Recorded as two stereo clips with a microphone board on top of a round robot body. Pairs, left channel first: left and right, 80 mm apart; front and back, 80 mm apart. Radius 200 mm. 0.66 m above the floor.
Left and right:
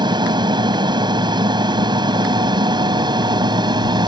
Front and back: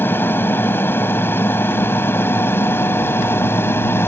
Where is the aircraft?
65° right; by 4.1 s 60° right.